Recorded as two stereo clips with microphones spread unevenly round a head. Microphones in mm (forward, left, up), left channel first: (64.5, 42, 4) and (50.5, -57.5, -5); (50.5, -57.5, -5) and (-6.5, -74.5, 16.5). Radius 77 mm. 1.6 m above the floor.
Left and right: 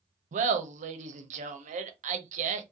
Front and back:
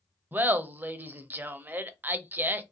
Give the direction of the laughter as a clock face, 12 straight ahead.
3 o'clock.